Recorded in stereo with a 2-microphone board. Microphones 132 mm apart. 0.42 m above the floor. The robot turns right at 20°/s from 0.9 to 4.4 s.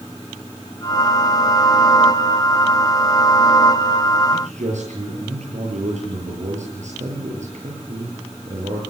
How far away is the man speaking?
About 8 m.